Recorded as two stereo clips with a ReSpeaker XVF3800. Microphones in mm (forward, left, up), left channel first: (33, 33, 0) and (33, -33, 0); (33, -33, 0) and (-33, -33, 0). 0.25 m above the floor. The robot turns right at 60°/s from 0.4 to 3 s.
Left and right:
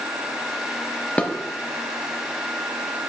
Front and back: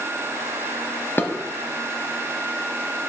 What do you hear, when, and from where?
1.2 s dishes clattering: 30° left, 0.8 m; by 1.3 s 35° left, 0.8 m